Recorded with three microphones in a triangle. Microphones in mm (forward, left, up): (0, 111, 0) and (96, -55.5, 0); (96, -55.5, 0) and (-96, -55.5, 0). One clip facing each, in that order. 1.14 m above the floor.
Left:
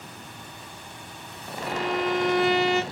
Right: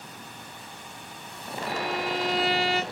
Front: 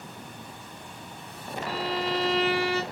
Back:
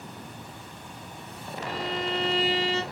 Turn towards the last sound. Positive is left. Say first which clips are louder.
# left 4 dB, front 1 dB
turn(degrees=80)